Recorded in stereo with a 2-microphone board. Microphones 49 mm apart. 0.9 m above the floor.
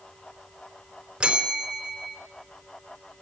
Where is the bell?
15° right (ahead or behind), 4 m.